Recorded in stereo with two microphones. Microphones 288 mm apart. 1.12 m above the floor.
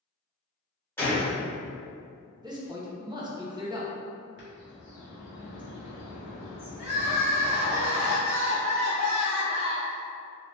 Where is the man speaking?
15° right (ahead or behind), 0.6 m.